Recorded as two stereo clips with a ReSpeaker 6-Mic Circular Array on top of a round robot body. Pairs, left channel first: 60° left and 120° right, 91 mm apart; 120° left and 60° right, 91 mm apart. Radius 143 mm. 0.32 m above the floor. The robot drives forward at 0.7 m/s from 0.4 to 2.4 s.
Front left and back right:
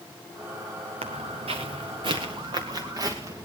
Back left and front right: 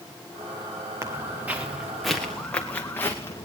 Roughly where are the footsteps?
Behind right.